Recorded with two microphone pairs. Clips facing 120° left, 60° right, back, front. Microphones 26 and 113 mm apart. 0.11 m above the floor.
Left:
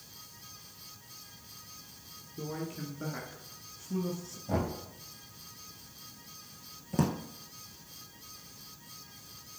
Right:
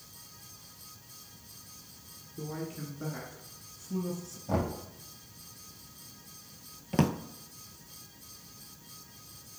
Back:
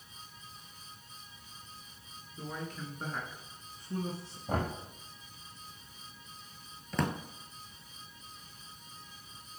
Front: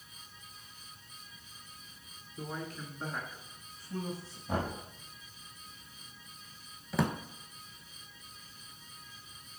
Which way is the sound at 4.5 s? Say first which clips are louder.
Right 1 dB, back 1 dB; 135° right.